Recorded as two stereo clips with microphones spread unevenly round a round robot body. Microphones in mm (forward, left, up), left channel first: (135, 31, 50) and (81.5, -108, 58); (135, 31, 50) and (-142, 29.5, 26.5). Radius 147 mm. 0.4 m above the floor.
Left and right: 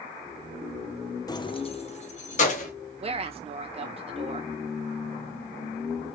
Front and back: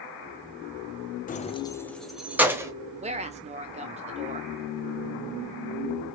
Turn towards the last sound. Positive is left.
turn(degrees=-135)